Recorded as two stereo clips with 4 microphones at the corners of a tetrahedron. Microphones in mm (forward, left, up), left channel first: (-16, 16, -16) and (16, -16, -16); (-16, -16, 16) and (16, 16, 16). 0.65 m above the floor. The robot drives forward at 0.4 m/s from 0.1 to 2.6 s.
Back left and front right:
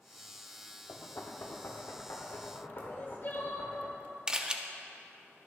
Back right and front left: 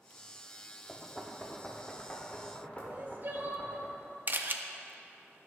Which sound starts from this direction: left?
Crying, at 2.9 s.